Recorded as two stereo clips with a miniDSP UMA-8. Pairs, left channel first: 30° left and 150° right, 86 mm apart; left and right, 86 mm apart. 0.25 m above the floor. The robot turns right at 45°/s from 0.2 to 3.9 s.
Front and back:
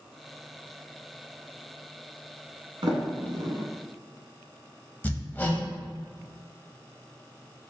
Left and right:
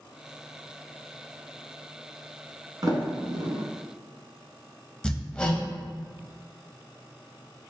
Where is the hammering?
30° left, 0.6 m.